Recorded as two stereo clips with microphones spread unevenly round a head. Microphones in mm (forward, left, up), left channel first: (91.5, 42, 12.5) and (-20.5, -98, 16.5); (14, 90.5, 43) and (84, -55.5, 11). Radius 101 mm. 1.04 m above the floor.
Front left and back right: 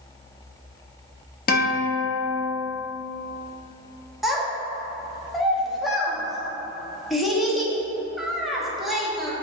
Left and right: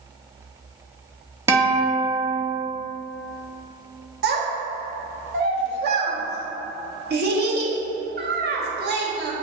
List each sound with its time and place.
1.5 s a guitar: 10° left, 1.0 m
4.2 s a child speaking: 40° right, 1.0 m